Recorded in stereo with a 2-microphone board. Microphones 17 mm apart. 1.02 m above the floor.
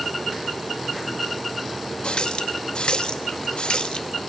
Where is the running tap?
70° left (ahead or behind), 0.8 m.